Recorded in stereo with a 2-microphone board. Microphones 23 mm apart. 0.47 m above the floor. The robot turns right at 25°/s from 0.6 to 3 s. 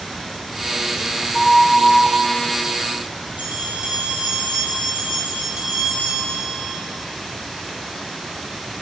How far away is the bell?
About 3 m.